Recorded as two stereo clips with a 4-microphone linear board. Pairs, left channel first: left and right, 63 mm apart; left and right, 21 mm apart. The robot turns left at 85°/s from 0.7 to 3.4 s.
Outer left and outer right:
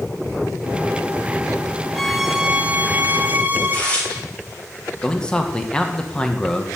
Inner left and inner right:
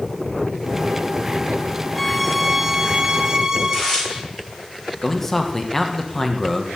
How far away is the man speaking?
About 1.8 m.